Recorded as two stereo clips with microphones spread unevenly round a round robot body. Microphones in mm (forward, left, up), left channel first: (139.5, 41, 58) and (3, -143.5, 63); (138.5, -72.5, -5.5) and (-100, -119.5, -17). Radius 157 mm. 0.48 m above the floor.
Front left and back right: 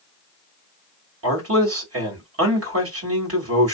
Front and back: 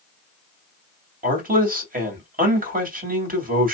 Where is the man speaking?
115° right, 2.5 m.